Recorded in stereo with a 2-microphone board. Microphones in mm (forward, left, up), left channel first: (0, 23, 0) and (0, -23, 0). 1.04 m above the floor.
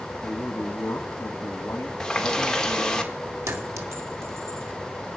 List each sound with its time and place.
0.2 s a man speaking: 70° left (ahead or behind), 1.5 m
2.0 s a running tap: 10° left (ahead or behind), 1.7 m
3.5 s a clink: 85° right, 1.6 m